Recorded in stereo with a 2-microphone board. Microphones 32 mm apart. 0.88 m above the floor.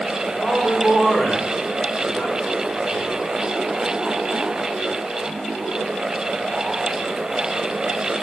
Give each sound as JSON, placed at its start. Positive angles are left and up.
{"t": 0.4, "sound": "a man speaking", "side_deg": 70, "distance_m": 3.0}